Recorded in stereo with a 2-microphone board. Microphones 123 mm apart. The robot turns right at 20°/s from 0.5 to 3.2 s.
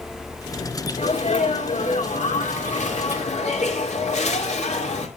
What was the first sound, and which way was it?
A sneeze, 65° left.